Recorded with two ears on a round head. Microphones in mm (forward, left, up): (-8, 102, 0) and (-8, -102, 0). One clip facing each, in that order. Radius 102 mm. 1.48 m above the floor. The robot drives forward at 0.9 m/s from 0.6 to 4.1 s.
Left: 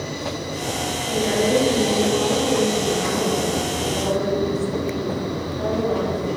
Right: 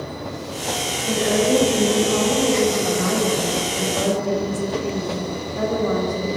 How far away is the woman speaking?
About 8 m.